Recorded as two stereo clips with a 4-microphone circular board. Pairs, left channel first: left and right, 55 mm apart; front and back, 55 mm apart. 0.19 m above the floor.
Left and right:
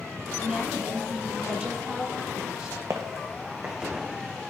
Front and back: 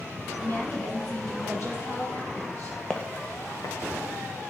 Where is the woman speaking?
20° right, 2 m.